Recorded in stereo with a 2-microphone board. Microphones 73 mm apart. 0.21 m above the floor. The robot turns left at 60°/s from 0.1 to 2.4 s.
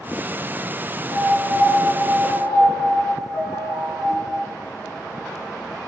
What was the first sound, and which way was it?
A piano, 160° left.